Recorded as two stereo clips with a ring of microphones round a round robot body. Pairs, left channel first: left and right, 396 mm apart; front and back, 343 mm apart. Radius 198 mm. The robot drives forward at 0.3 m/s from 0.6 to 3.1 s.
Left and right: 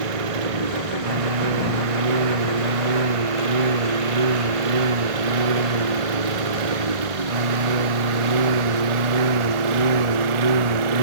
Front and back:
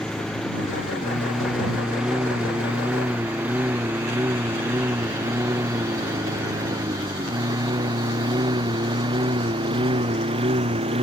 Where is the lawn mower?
90° right; by 11.0 s 105° right.